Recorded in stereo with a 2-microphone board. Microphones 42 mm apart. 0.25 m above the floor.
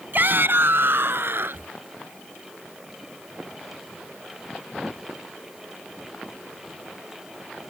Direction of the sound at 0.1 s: 55° right (ahead or behind).